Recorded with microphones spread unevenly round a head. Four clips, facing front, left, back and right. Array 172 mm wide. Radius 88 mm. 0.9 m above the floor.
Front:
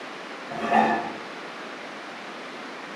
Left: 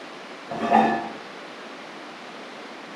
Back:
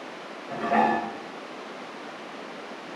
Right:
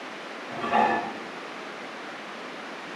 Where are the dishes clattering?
100° left, 0.5 m.